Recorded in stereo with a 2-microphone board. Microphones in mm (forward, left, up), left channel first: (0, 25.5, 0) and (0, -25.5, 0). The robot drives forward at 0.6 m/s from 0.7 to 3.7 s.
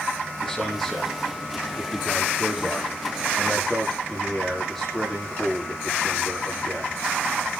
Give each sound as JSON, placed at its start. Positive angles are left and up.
{"t": 0.4, "sound": "a man speaking", "side_deg": 5, "distance_m": 6.0}